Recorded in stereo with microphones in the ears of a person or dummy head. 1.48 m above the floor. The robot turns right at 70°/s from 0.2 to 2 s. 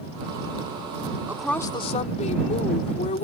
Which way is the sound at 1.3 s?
10° right.